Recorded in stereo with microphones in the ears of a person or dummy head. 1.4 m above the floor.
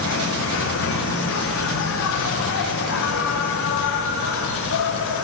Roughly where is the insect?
Left.